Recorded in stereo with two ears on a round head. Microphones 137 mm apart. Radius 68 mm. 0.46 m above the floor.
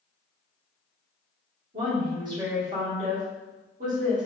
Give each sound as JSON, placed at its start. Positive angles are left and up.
{"t": 1.7, "sound": "a woman speaking", "side_deg": -50, "distance_m": 1.8}